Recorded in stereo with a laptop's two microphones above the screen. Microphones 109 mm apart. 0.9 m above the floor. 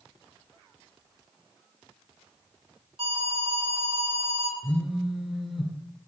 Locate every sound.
3.0 s an alarm: 60° right (ahead or behind), 3.5 m
4.6 s a phone buzzing: centre (ahead or behind), 1.1 m